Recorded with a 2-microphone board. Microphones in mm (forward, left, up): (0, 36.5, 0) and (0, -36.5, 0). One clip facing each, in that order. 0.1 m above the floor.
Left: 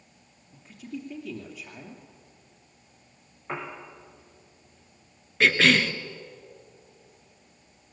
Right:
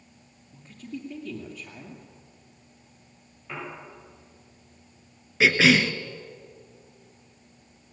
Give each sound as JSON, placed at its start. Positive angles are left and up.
{"t": 0.5, "sound": "a woman speaking", "side_deg": 10, "distance_m": 2.5}
{"t": 3.5, "sound": "a piano", "side_deg": 40, "distance_m": 6.5}
{"t": 5.4, "sound": "a cough", "side_deg": -5, "distance_m": 1.1}